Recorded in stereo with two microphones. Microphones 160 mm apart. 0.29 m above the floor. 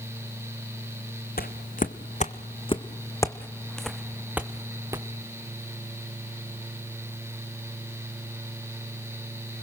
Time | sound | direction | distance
1.4 | footsteps | 70° left (ahead or behind) | 1.2 m